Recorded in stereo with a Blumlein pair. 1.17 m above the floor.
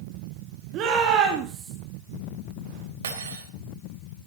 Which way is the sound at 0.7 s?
35° right.